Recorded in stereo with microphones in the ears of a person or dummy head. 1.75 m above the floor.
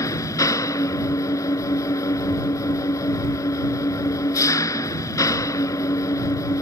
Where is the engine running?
25° left (ahead or behind).